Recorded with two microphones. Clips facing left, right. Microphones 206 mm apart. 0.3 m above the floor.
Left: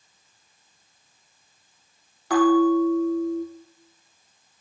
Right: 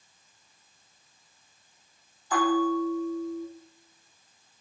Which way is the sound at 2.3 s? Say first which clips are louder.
Left 8 dB; 75° left (ahead or behind).